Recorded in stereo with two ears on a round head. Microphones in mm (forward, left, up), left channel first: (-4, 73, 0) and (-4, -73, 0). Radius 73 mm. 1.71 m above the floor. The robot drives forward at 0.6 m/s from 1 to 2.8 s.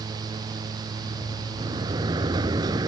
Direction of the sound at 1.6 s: 25° right (ahead or behind).